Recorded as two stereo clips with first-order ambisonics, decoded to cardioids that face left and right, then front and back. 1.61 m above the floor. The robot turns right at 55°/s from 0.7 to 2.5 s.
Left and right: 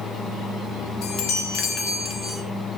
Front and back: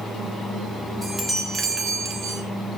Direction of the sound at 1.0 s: 80° left.